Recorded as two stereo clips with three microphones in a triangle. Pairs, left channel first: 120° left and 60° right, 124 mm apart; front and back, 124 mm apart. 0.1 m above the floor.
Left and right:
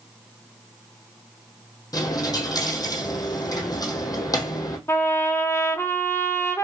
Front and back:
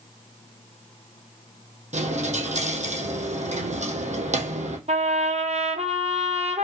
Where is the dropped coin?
Straight behind, 1.0 m.